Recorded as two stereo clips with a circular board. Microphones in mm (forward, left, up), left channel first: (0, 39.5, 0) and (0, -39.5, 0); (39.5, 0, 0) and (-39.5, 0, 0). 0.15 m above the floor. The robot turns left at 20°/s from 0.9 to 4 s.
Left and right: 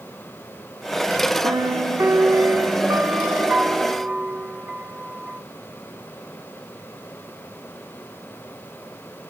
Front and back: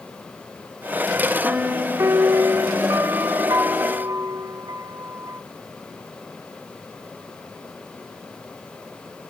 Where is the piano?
110° right, 0.8 m; by 5.4 s 165° right, 0.8 m.